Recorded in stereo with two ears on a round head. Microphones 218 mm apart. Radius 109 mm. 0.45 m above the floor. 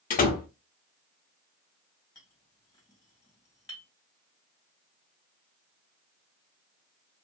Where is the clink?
15° left (ahead or behind), 1.9 m.